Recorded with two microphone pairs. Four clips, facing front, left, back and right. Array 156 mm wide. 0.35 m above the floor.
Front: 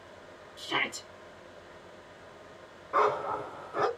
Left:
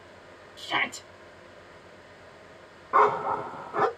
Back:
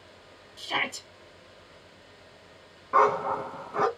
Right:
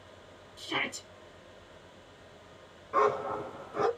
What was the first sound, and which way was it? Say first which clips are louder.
A shout: left 5 dB, back 2 dB; 120° left.